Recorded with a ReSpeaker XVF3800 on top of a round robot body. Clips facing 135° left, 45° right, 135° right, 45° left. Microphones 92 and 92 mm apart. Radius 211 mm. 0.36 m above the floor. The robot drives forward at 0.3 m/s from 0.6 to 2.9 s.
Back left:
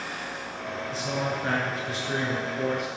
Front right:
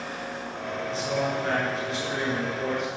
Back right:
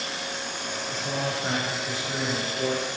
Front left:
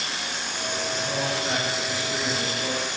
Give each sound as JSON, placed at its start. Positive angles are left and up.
{"t": 0.9, "sound": "a man speaking", "azimuth_deg": -175, "distance_m": 7.5}